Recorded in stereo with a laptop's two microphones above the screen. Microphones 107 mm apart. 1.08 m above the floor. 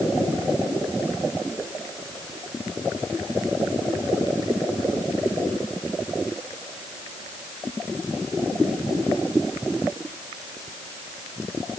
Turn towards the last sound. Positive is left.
No sound to turn to.